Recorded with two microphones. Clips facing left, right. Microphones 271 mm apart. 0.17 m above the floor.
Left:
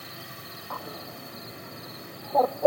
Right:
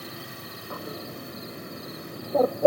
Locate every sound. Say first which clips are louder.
0.7 s a bird: right 4 dB; 25° right (ahead or behind)